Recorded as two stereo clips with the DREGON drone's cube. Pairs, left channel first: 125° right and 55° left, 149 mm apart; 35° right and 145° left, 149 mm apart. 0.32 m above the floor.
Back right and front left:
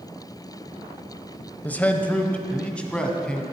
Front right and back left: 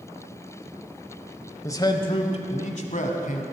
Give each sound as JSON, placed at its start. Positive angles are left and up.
{"t": 1.6, "sound": "a man speaking", "azimuth_deg": -65, "distance_m": 0.8}